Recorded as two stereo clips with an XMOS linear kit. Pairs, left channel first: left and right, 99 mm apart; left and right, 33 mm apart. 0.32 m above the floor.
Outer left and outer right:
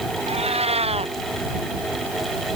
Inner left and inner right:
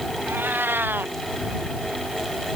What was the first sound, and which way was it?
A cat meowing, 90° right.